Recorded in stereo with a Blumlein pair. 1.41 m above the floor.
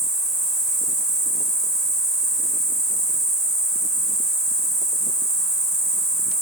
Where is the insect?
10° right, 1.4 m.